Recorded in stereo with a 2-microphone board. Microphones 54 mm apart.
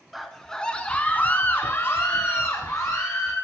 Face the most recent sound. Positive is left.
turn(degrees=60)  # may be behind; listen again after turning